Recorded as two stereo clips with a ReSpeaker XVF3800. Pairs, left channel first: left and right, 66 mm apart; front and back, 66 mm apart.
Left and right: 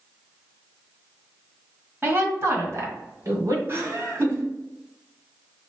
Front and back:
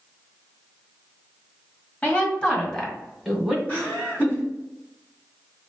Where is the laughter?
50° right, 2.0 m.